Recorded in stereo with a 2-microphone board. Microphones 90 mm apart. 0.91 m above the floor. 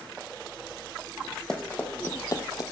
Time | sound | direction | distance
1.5 | running footsteps | 10° left (ahead or behind) | 1.5 m